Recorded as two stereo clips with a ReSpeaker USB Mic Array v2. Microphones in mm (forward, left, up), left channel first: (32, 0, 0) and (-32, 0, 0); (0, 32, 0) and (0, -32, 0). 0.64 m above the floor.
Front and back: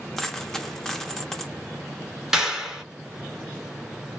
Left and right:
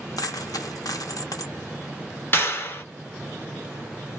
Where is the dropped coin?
85° left, 0.5 m.